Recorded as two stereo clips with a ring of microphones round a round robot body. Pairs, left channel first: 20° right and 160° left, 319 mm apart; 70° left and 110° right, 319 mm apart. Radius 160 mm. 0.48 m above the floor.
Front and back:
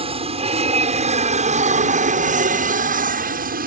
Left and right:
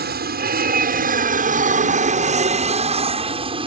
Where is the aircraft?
145° right; by 3.7 s 170° right.